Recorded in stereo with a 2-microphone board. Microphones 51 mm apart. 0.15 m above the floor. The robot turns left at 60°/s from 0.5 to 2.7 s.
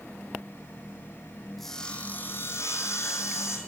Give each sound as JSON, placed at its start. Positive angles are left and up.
{"t": 1.6, "sound": "sawing", "azimuth_deg": 180, "distance_m": 2.5}